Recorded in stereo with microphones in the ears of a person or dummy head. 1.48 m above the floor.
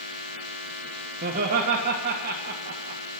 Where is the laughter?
40° right (ahead or behind), 1.6 m.